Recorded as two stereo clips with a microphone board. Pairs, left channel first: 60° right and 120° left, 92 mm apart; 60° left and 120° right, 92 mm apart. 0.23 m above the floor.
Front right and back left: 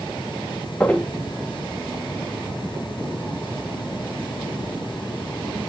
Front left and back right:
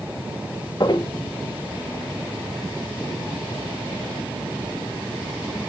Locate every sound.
0.8 s footsteps: 15° left, 1.1 m